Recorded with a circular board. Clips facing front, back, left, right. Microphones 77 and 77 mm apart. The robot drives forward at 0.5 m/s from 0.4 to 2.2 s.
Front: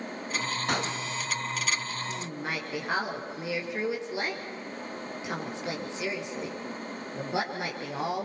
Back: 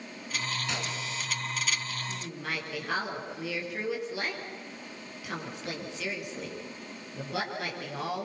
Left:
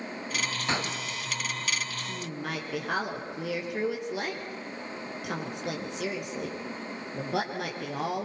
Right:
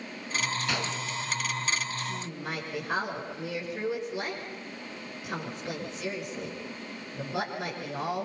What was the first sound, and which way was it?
A gunshot, 35° left.